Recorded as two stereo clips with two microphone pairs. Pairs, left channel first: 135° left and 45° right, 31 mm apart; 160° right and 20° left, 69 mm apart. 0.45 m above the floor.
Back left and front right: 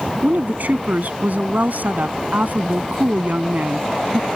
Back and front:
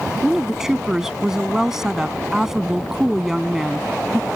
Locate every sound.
0.2 s a woman speaking: 60° right